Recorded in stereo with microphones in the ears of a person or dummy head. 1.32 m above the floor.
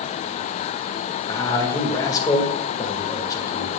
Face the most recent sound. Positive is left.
turn(degrees=25)  # may be behind; listen again after turning